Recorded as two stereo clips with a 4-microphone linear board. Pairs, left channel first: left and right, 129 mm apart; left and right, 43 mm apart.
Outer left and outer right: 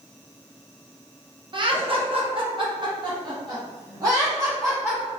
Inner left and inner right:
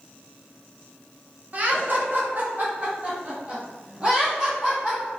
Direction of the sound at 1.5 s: 40° right (ahead or behind).